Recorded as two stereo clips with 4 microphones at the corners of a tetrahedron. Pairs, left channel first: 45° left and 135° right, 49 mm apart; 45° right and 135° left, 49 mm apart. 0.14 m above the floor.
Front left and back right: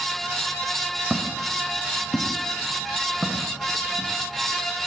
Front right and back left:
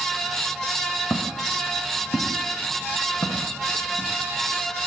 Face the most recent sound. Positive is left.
turn(degrees=-40)